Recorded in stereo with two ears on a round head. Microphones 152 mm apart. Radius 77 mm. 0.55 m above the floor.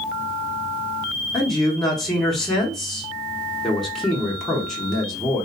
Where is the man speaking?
Centre (ahead or behind), 0.7 m.